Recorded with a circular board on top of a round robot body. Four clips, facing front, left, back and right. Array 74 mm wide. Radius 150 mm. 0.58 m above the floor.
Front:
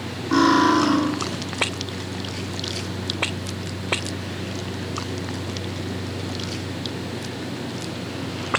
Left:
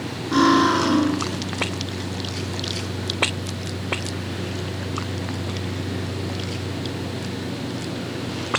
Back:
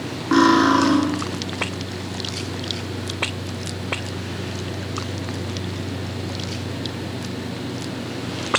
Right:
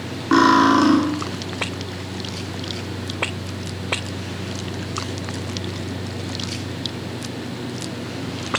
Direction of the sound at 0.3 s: 110° right.